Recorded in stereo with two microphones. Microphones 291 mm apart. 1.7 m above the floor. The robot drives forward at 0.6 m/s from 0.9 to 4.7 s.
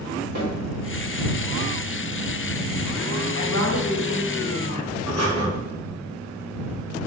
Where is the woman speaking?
85° left, 2.5 m; by 4.9 s 75° left (ahead or behind), 2.5 m.